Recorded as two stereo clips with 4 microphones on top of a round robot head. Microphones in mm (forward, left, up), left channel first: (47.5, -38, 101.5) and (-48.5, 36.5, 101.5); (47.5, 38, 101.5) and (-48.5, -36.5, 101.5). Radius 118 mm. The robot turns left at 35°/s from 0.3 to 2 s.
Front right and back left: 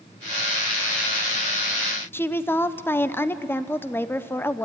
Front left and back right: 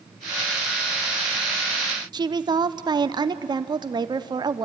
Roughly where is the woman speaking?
Right.